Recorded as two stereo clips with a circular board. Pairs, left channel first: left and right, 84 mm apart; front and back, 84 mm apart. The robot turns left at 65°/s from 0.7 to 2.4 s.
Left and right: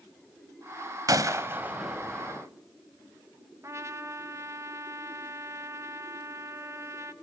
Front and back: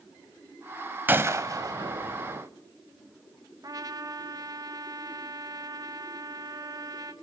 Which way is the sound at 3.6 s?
140° right.